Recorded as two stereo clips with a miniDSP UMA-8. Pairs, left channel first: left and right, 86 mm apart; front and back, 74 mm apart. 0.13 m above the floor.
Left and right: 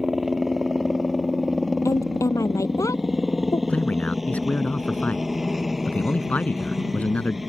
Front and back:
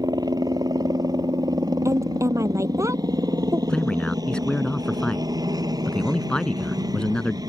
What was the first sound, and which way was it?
A helicopter, straight behind.